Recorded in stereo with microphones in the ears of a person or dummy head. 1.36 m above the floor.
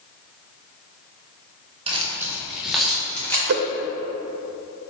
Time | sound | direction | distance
1.9 | keys jangling | 30° right (ahead or behind) | 1.1 m
3.5 | a whoosh | 50° right (ahead or behind) | 0.6 m